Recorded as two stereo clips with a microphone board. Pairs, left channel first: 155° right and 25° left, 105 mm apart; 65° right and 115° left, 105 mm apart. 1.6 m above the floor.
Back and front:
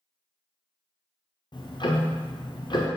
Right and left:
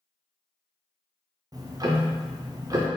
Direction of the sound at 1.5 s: 165° left.